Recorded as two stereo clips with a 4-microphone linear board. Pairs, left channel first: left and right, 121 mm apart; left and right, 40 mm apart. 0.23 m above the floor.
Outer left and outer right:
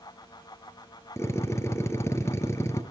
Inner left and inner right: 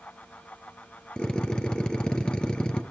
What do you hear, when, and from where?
1.2 s a drill: 25° left (ahead or behind), 2.5 m